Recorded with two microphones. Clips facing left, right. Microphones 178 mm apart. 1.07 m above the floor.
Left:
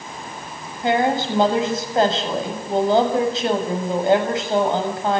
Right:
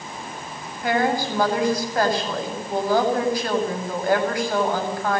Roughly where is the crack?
No crack in this recording.